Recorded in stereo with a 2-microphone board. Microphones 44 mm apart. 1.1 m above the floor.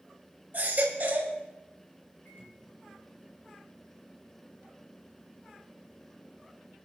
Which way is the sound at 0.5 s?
45° right (ahead or behind).